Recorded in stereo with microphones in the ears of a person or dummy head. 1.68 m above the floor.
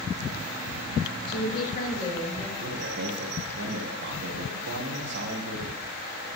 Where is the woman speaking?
65° left (ahead or behind), 2.5 m; by 2.5 s 40° left (ahead or behind), 3 m.